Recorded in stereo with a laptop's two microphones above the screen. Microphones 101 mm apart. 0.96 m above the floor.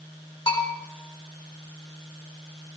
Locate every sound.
0.5 s a bell: 50° left (ahead or behind), 4.5 m